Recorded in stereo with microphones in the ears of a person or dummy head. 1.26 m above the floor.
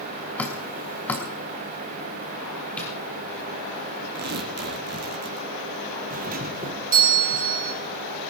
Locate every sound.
0.4 s dripping: 10° left (ahead or behind), 2.5 m
2.8 s tapping: 5° left (ahead or behind), 6.5 m
4.2 s tearing paper: 60° right (ahead or behind), 2.5 m
6.1 s a doorbell: 45° right (ahead or behind), 1.4 m